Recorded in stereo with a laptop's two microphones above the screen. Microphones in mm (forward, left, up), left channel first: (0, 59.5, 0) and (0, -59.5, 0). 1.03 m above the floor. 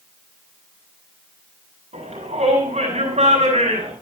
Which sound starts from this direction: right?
A shout, at 1.9 s.